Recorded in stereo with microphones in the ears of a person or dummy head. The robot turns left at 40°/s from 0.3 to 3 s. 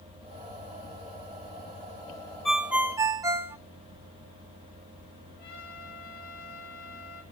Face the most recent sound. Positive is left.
turn(degrees=50)  # may be behind; listen again after turning